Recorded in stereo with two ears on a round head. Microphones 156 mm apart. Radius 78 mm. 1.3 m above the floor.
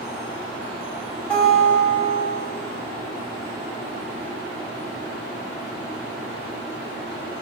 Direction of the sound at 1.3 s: 5° left (ahead or behind).